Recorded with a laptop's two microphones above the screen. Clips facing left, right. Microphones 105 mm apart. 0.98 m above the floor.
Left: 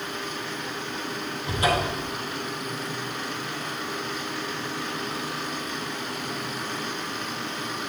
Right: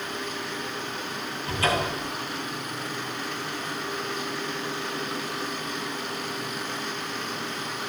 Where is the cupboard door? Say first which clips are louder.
Left 1 dB; 20° left (ahead or behind), 5 m.